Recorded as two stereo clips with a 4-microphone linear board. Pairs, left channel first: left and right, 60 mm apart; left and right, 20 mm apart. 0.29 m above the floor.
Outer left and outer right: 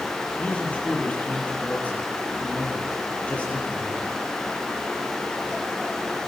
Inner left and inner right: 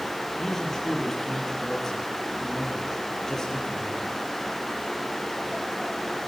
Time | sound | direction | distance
0.4 | a man speaking | 20° left (ahead or behind) | 7 m